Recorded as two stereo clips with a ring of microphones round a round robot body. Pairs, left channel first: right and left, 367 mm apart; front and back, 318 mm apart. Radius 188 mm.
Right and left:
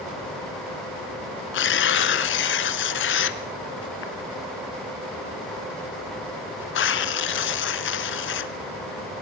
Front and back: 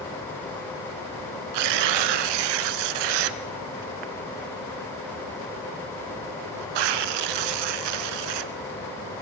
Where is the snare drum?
I don't hear a snare drum.